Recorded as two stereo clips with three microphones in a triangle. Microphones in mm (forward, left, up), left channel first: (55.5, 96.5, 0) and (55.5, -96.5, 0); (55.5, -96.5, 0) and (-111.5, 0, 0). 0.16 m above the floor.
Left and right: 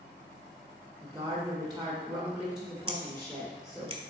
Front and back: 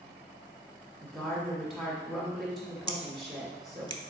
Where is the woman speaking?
120° right, 1.6 m.